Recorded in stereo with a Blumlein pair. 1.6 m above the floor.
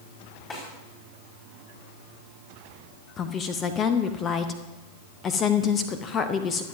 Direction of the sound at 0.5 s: 25° left.